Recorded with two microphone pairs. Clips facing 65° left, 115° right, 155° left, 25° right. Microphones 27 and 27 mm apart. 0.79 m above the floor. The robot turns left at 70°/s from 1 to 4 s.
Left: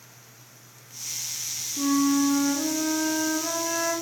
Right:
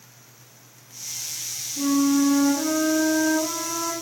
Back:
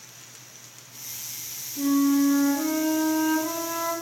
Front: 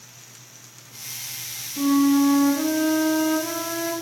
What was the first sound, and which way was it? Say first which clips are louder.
A flute: right 2 dB, front 3 dB; 25° right.